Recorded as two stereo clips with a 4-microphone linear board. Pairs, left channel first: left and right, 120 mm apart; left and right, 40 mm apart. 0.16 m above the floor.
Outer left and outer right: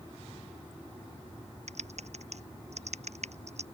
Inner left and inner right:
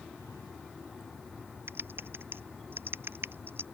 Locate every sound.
1.7 s typing on a keyboard: 70° right (ahead or behind)